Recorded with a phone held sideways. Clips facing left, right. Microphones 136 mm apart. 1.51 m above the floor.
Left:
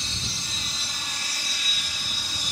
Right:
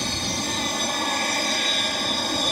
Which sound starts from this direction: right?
An aircraft, at 0.0 s.